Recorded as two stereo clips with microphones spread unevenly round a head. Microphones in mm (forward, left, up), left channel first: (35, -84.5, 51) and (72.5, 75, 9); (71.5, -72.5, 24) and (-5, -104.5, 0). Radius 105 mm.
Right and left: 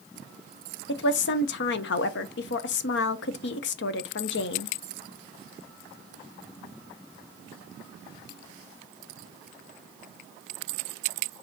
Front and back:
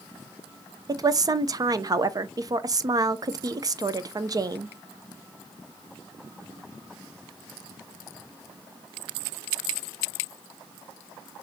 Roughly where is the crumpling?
No crumpling in this recording.